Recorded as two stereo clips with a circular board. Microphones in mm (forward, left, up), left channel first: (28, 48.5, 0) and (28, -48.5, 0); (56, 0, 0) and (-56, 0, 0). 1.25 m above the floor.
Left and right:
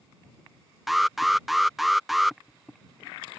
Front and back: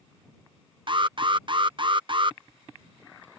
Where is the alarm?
Straight behind.